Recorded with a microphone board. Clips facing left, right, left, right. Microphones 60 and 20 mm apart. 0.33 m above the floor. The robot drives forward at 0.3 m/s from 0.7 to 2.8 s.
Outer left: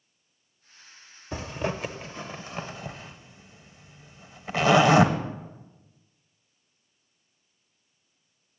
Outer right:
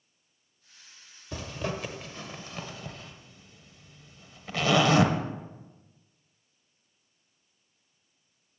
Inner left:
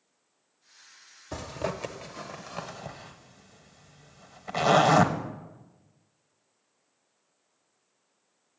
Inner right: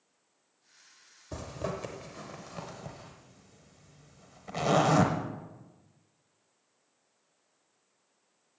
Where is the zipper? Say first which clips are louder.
Outer left 3 dB, inner left 3 dB; 25° left (ahead or behind), 0.8 m; by 5.1 s 20° left (ahead or behind), 1.0 m.